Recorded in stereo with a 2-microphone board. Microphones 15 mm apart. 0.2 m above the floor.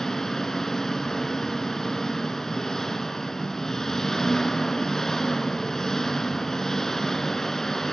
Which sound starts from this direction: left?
An engine running, at 0.0 s.